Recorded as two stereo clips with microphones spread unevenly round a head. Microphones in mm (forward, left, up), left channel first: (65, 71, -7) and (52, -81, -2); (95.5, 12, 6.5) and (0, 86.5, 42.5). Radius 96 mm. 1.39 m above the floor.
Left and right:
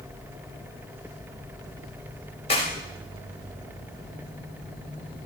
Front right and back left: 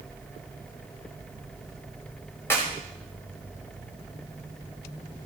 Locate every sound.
2.5 s a clap: 35° left, 5 m